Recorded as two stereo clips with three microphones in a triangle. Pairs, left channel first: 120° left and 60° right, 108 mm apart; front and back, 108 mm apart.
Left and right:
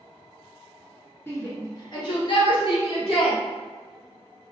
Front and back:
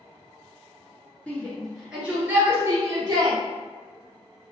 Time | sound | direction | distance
1.3 | a shout | 65° left | 1.6 m